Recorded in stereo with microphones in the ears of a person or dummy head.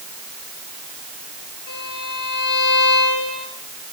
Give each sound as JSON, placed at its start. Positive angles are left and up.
{"t": 1.7, "sound": "a violin", "side_deg": 60, "distance_m": 8.5}